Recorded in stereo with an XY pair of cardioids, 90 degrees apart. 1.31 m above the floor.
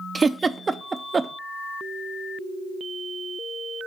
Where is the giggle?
30° right, 0.5 m.